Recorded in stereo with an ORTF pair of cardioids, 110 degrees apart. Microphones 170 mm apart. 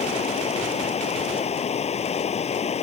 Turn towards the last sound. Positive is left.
turn(degrees=40)